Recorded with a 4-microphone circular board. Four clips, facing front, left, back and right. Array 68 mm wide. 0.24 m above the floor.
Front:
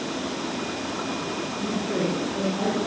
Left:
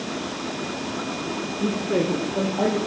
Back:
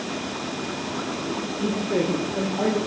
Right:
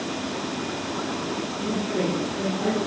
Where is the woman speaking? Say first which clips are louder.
Left 4 dB, back 3 dB; 115° left, 7.5 m.